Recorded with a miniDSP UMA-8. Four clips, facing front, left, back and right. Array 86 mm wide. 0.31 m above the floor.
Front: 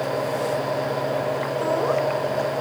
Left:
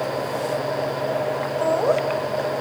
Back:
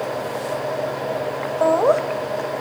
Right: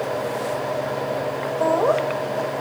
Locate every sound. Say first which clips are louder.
1.6 s laughter: right 2 dB, back 8 dB; 170° right, 1.4 m